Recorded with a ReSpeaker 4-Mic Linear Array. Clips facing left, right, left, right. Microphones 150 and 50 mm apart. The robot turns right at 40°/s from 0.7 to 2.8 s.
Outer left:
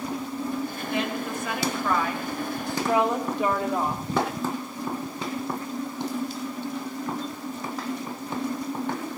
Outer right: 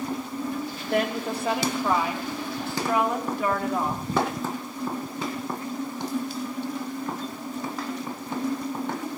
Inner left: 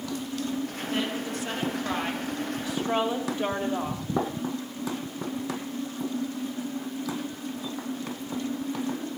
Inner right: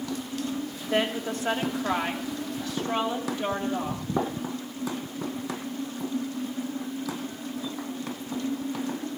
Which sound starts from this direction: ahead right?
A woman speaking, at 0.8 s.